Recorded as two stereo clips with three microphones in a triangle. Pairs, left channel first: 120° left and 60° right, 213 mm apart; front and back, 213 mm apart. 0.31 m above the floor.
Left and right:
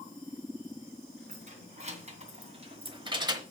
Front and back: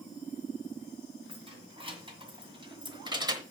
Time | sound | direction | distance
1.3 | keys jangling | 115° right | 2.5 m